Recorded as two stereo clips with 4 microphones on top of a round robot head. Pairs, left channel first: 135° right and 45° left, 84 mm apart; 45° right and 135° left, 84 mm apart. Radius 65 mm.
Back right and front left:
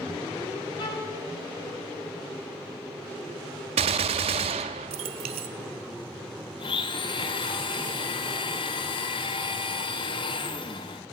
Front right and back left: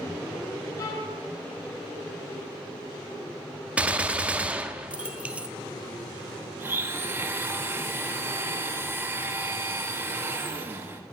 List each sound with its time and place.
0.8 s a violin: 95° right, 6 m
3.8 s a gunshot: 60° left, 0.6 m
6.6 s a blender: 160° right, 1.1 m